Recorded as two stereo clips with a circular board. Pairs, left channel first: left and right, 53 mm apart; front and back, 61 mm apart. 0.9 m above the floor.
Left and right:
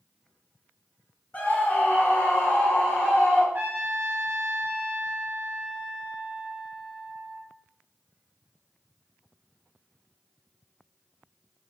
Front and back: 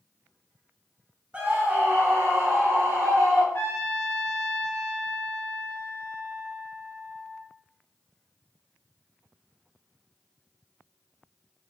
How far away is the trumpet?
About 0.6 m.